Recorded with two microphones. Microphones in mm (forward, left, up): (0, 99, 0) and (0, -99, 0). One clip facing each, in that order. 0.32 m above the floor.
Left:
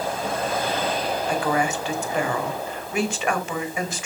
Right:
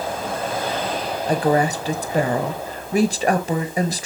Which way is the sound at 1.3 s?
35° right (ahead or behind).